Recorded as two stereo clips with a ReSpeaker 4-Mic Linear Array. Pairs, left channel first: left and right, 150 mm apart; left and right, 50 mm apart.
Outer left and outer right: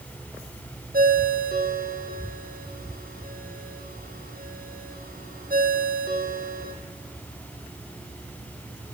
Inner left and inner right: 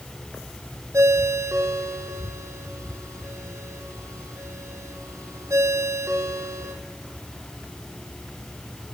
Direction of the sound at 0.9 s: 75° right (ahead or behind).